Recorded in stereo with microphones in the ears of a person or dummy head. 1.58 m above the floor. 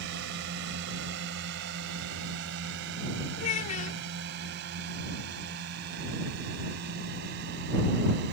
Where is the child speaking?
35° left (ahead or behind).